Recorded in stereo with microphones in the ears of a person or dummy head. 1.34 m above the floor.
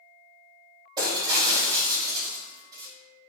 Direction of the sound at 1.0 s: 20° right (ahead or behind).